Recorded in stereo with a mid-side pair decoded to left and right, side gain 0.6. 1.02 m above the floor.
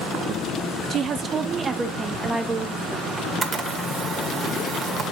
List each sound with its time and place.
0.9 s a woman speaking: 45° right, 1.1 m; by 3.1 s 5° right, 2 m
3.2 s a camera shutter: 30° right, 1.6 m